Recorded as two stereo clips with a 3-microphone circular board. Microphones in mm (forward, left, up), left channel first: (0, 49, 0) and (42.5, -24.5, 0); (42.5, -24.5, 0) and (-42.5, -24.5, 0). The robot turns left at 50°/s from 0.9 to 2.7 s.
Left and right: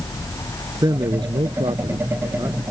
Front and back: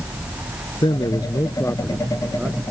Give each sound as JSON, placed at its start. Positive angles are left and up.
{"t": 0.8, "sound": "a man speaking", "azimuth_deg": -20}